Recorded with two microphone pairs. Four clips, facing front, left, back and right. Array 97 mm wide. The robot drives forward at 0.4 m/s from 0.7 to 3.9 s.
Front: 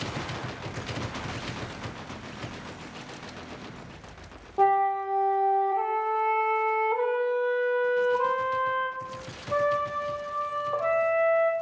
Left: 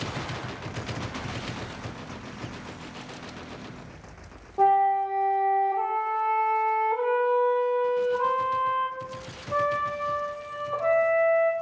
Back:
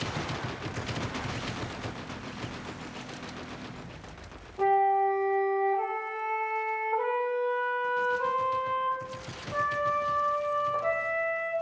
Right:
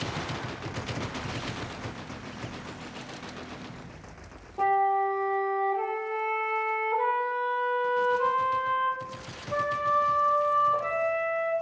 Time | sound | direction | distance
4.6 | a flute | 20° left | 2 m